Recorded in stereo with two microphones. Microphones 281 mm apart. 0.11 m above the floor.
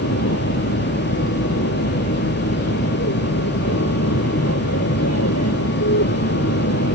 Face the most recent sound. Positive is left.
turn(degrees=60)  # may be behind; listen again after turning